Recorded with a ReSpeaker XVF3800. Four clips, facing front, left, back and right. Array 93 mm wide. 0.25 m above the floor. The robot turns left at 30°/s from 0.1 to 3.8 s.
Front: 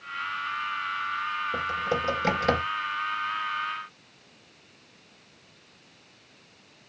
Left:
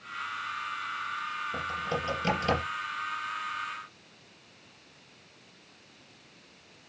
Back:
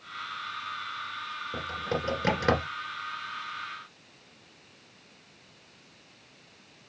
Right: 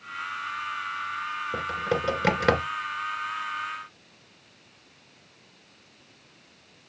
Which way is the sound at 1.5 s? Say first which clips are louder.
Right 7 dB, front 2 dB; 75° right.